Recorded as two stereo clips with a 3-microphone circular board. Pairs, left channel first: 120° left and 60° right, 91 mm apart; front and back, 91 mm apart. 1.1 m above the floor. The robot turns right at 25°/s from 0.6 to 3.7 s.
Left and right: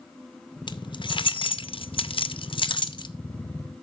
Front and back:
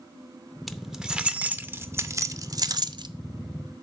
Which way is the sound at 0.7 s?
90° left.